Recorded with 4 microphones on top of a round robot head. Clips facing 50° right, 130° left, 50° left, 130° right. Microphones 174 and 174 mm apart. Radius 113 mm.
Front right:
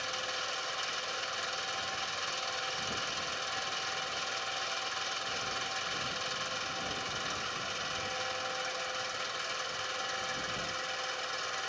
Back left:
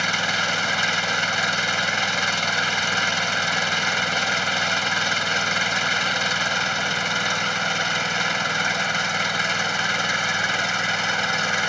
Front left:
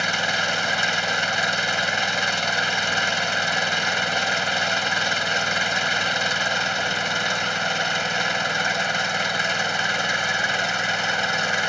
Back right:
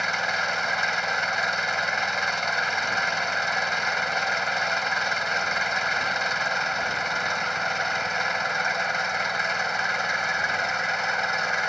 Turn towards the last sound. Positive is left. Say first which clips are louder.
# back left 12 dB, front left 3 dB
turn(degrees=110)